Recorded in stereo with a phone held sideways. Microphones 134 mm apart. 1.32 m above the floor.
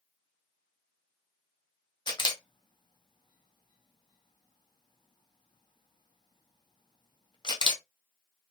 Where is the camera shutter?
35° left (ahead or behind), 0.7 m.